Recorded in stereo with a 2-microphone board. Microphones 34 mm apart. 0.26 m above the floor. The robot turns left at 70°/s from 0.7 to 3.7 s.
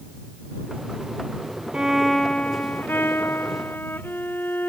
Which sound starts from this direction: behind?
A violin, at 1.7 s.